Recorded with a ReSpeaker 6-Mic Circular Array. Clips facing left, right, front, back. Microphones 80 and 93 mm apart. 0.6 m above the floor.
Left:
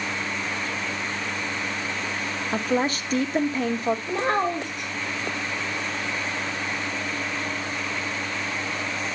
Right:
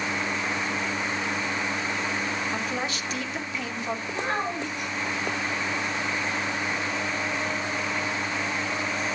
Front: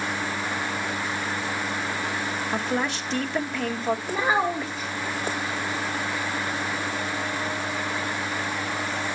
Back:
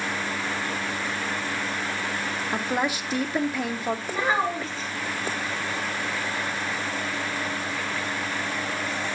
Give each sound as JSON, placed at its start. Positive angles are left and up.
{"t": 2.5, "sound": "a woman speaking", "azimuth_deg": 100, "distance_m": 0.9}
{"t": 4.1, "sound": "a child speaking", "azimuth_deg": 80, "distance_m": 1.8}